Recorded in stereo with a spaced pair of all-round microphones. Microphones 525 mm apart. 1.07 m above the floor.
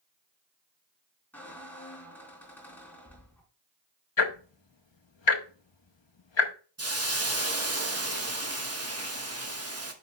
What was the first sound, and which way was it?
A squeak, 5° left (ahead or behind).